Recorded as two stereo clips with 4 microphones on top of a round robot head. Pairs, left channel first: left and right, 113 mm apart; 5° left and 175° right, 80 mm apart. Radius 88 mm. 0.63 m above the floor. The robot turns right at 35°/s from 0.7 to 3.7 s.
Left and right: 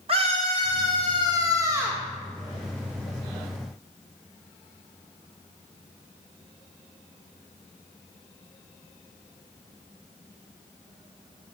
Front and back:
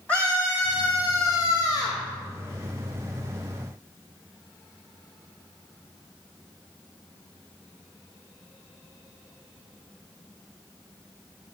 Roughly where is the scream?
Ahead right.